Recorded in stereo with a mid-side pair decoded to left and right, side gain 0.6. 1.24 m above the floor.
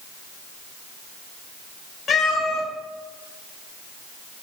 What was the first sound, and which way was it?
A cat meowing, 40° left.